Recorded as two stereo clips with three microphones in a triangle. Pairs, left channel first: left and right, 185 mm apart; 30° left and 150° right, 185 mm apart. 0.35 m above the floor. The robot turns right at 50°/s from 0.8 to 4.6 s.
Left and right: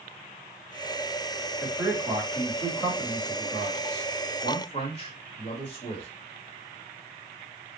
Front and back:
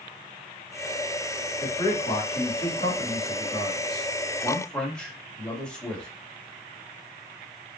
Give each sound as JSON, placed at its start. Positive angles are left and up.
{"t": 1.6, "sound": "a man speaking", "azimuth_deg": -40, "distance_m": 1.7}